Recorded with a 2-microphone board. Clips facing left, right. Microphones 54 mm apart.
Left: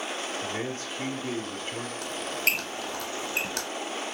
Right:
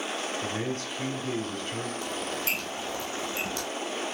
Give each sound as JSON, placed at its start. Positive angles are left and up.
{"t": 0.4, "sound": "a man speaking", "side_deg": 25, "distance_m": 1.0}
{"t": 2.0, "sound": "a squeak", "side_deg": 60, "distance_m": 0.7}